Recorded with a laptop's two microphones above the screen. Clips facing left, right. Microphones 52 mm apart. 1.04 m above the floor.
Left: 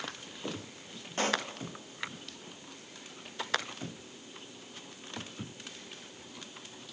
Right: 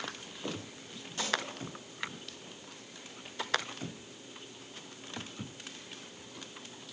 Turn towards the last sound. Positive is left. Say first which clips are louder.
# left 3 dB
turn(degrees=40)  # may be behind; listen again after turning